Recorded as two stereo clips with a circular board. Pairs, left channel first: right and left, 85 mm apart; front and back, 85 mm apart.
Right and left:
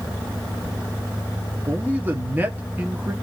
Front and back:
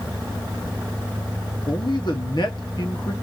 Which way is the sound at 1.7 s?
25° left.